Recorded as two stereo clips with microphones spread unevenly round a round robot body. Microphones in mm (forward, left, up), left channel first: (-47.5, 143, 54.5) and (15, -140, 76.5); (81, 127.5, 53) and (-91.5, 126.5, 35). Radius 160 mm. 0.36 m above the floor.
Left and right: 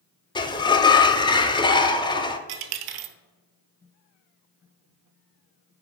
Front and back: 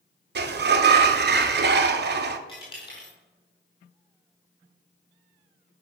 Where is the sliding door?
175° left, 0.6 m.